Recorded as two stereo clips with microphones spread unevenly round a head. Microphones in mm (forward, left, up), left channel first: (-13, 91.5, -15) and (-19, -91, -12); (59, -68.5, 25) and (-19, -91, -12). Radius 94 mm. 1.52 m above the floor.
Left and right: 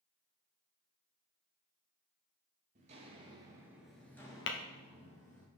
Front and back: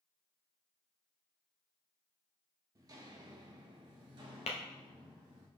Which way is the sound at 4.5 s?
55° left.